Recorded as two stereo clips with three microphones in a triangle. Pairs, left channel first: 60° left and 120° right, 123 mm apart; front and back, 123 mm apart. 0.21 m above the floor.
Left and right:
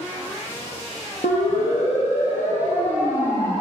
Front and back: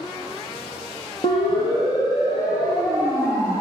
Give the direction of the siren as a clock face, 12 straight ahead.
10 o'clock.